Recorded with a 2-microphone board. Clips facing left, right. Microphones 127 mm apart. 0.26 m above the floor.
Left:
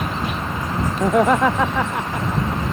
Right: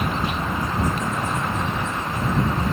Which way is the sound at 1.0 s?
80° left.